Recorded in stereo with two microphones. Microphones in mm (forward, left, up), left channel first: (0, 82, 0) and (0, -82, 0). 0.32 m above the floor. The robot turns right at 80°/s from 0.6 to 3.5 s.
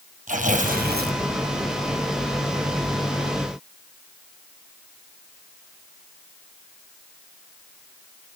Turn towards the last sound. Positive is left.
turn(degrees=105)